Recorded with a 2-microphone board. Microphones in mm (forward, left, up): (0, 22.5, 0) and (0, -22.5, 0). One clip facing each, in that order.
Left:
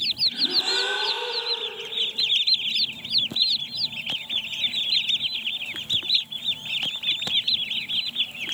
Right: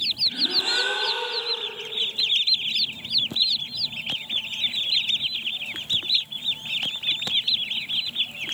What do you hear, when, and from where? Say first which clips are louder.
0.3 s a gasp: right 2 dB; 15° right (ahead or behind), 1.5 m